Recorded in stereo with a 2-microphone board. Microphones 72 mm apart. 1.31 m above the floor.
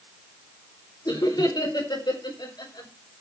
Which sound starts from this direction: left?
Laughter, at 1.1 s.